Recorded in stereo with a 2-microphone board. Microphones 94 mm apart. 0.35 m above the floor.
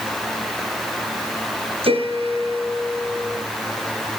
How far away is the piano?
About 3.5 m.